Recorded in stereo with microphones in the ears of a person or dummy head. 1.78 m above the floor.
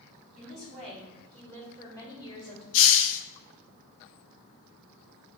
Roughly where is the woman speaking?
Centre.